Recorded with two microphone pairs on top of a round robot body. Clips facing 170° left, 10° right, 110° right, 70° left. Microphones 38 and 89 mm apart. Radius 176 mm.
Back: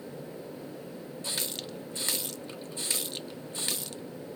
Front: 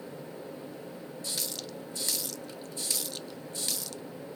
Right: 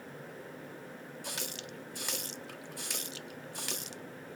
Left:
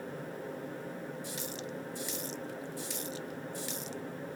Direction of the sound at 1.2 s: 135° right.